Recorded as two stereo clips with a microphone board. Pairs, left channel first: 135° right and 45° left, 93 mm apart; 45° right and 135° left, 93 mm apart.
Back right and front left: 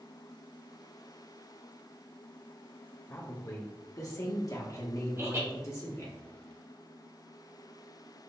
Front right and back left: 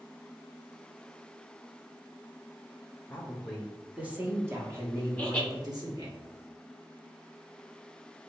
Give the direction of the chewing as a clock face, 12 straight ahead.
I don't hear chewing.